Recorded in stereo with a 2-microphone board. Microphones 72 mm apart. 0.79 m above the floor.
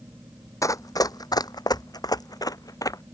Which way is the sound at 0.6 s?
45° left (ahead or behind).